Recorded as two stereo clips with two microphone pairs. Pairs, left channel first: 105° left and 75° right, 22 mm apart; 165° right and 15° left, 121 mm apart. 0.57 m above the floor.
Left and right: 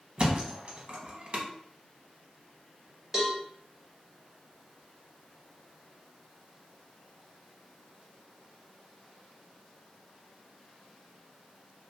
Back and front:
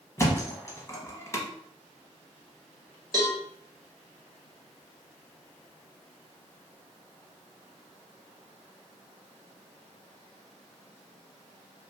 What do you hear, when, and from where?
0.2 s a thud: 100° right, 0.6 m
3.1 s a cowbell: 10° right, 0.8 m